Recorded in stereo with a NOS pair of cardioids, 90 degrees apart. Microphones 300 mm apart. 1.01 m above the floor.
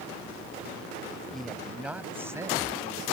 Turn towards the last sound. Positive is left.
turn(degrees=-15)